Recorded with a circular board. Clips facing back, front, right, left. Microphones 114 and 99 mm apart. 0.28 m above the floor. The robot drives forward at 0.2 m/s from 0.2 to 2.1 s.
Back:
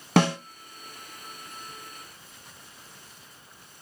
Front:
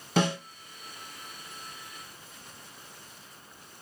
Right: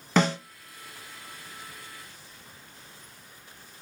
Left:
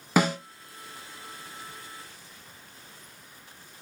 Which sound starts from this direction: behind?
A snare drum, at 0.2 s.